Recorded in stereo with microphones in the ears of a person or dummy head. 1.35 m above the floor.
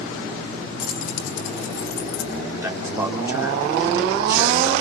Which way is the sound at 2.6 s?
15° right (ahead or behind).